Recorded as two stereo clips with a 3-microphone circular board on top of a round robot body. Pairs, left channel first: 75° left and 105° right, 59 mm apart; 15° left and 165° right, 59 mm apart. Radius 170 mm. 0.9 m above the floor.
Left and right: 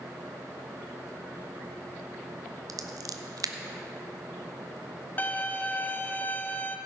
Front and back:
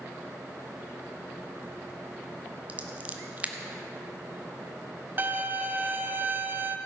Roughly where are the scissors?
Right.